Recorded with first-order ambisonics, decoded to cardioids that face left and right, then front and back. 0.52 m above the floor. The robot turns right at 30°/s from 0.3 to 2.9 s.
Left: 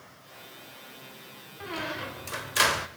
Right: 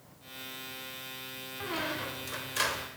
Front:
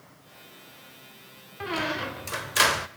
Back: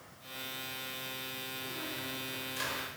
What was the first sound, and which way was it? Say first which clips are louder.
A squeak: left 1 dB, front 16 dB; 5° right.